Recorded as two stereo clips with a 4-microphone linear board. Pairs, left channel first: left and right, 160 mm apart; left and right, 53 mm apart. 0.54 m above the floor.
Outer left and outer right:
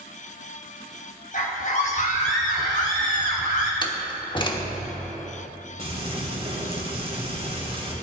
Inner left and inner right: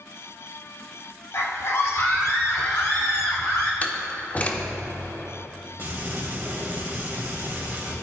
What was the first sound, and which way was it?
A scream, 55° left (ahead or behind).